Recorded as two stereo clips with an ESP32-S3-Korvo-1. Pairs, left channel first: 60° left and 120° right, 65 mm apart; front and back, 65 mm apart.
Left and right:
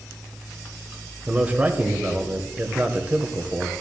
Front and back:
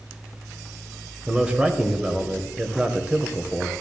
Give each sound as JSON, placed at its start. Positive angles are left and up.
{"t": 1.3, "sound": "a man speaking", "azimuth_deg": -140, "distance_m": 0.9}